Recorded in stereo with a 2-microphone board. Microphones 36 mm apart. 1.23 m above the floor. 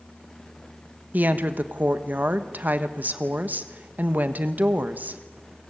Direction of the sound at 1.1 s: 50° right (ahead or behind).